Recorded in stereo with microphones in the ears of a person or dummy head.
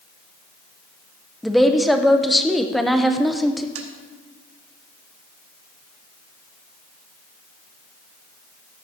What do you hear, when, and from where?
1.4 s a woman speaking: centre (ahead or behind), 0.6 m
3.8 s tapping: 80° right, 1.3 m